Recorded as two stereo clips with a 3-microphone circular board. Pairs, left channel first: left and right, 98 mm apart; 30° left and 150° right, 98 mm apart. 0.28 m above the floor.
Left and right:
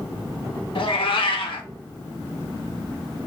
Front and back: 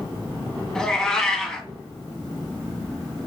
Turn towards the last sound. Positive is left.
turn(degrees=115)